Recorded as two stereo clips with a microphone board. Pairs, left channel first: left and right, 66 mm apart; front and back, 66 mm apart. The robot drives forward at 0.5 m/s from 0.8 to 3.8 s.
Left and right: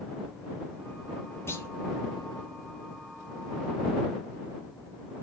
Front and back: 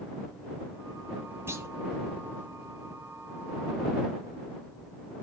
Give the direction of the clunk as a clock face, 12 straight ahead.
8 o'clock.